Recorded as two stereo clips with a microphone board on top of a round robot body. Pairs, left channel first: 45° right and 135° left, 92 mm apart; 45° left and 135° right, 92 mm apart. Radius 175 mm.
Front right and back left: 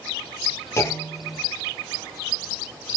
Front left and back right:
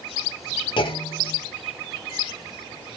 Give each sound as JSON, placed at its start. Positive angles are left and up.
{"t": 0.8, "sound": "a clunk", "azimuth_deg": 15, "distance_m": 1.4}